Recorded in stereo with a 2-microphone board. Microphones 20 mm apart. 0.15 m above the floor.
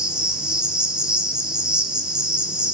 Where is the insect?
50° right (ahead or behind), 1.5 m.